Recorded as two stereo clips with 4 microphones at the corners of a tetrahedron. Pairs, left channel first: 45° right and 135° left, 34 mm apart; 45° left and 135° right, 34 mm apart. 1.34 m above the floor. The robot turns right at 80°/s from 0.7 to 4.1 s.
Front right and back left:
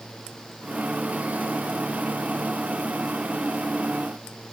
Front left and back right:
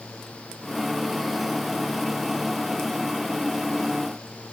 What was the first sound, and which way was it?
Only background noise.